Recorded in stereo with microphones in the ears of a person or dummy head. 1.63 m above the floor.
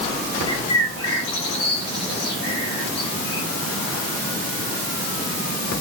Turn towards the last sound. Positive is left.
turn(degrees=80)